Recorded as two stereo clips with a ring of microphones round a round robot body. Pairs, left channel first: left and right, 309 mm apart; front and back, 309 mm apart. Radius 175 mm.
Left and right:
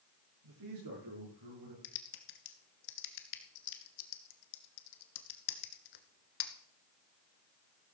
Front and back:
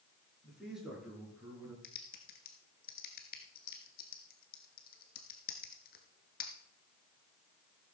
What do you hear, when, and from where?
0.4 s a man speaking: 90° right, 9 m; by 1.7 s 95° right, 7.5 m
1.8 s typing on a keyboard: 65° left, 1.3 m